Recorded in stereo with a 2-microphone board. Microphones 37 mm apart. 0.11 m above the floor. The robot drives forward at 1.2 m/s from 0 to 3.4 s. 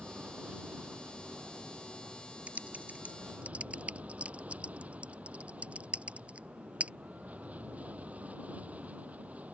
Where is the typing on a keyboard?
45° right (ahead or behind); by 6.9 s 35° right (ahead or behind).